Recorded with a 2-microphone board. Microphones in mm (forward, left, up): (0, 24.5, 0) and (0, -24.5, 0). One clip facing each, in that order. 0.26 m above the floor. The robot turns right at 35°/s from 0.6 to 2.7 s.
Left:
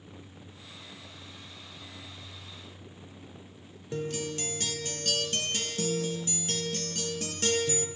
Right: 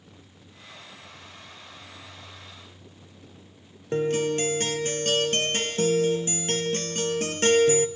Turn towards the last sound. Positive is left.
turn(degrees=-45)  # may be behind; listen again after turning